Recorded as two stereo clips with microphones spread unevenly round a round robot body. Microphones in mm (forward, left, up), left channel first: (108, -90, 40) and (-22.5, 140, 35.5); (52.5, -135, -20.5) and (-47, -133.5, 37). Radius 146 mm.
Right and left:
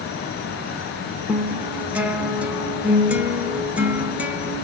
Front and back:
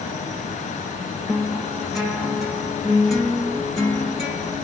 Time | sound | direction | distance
1.3 | a guitar | 40° left | 0.8 m